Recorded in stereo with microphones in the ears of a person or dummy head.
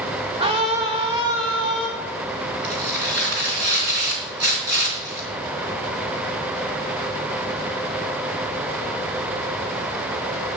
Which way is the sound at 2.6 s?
50° right (ahead or behind).